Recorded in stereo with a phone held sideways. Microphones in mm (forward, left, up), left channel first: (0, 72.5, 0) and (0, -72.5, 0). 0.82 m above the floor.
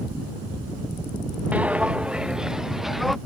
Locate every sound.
1.5 s footsteps: 10° right (ahead or behind); by 3.2 s centre (ahead or behind)